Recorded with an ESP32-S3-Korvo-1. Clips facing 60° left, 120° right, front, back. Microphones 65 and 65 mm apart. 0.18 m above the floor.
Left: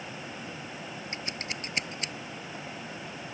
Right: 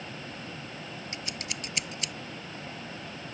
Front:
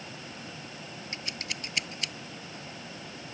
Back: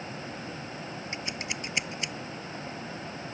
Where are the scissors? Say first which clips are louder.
Left 2 dB, back 2 dB; 115° left.